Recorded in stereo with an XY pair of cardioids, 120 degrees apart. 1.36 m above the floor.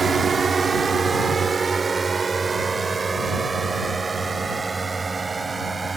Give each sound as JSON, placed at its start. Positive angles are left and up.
{"t": 0.0, "sound": "a drone", "azimuth_deg": -30}